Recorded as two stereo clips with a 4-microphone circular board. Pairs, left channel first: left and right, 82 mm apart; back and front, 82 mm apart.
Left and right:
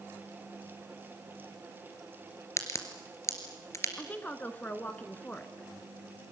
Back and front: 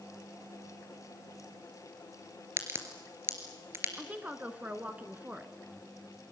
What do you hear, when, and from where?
2.6 s a crack: 50° left, 2.5 m
4.0 s a woman speaking: 45° left, 1.4 m